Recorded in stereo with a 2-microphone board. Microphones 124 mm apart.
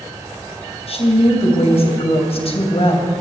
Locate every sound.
0.9 s a woman speaking: 55° left (ahead or behind), 3 m